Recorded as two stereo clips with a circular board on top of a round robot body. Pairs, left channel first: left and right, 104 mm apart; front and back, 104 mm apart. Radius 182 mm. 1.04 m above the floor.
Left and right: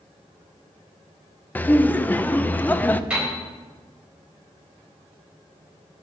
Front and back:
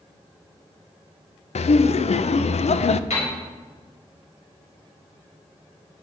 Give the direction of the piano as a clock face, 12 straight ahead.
12 o'clock.